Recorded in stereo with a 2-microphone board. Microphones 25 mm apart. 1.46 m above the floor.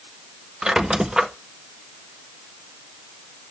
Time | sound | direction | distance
0.6 | a squeak | 25° right (ahead or behind) | 0.6 m